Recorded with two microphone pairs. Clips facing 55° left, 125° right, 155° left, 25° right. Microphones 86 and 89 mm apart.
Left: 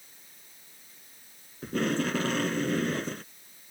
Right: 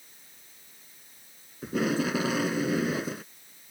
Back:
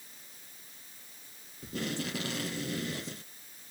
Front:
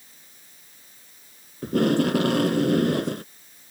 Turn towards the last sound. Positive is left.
turn(degrees=-40)